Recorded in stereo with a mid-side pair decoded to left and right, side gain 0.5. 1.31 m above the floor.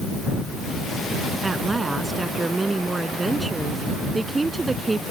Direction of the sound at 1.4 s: 20° right.